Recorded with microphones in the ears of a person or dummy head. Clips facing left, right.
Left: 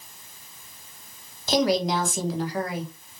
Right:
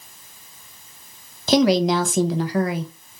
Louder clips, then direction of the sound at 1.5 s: Right 6 dB; 55° right (ahead or behind).